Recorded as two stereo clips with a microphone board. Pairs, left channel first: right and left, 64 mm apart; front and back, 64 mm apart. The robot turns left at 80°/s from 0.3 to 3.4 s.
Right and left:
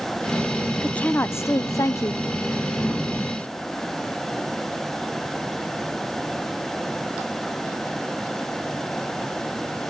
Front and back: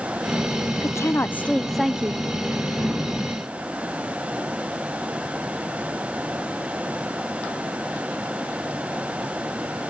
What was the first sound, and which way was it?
A woman speaking, 15° right.